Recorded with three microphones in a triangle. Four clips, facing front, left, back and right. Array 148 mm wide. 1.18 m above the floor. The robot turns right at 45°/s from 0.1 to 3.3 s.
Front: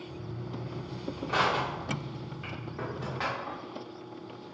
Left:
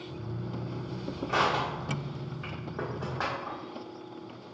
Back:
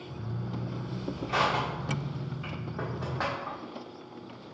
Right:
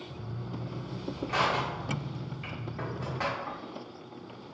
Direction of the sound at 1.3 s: 40° left.